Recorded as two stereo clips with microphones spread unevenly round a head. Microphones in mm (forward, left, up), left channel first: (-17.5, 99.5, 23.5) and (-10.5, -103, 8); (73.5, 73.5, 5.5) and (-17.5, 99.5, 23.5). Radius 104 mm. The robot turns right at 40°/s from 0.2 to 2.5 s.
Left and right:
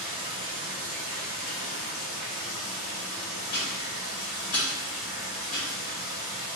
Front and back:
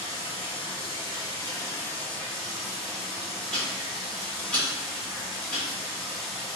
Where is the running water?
10° right, 1.5 m; by 6.6 s 85° left, 1.5 m.